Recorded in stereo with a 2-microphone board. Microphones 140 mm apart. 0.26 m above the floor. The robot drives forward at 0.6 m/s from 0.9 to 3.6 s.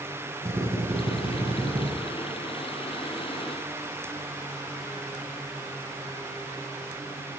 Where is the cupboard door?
No cupboard door in this recording.